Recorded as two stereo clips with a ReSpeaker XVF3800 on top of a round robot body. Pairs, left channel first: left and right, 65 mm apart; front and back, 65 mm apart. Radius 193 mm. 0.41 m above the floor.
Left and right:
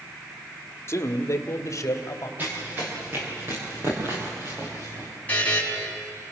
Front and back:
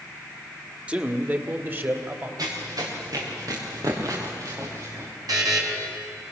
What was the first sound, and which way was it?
A man speaking, 115° left.